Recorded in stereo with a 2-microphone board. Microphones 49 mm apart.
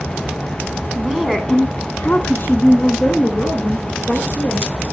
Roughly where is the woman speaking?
Centre.